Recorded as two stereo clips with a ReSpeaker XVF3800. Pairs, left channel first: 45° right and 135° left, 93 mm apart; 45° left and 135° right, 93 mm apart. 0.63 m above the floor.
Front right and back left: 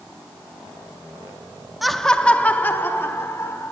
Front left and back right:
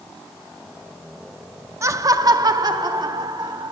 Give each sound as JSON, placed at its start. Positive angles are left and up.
{"t": 1.8, "sound": "laughter", "azimuth_deg": -140, "distance_m": 0.8}